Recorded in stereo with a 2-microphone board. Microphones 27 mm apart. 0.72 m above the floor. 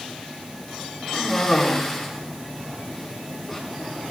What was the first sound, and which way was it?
A cough, 5° left (ahead or behind).